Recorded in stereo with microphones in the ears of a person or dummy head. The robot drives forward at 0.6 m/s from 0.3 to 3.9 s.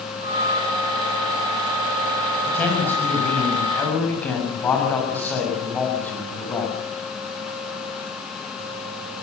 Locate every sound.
2.5 s a man speaking: 10° left (ahead or behind), 6 m